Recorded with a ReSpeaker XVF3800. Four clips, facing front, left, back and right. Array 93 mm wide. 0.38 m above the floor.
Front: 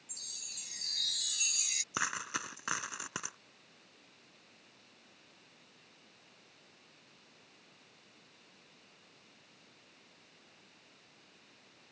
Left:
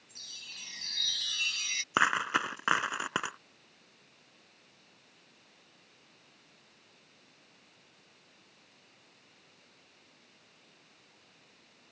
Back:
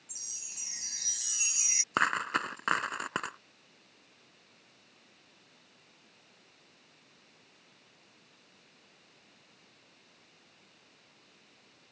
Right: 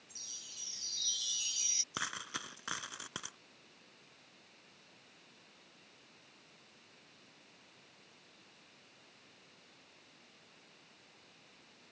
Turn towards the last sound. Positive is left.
turn(degrees=125)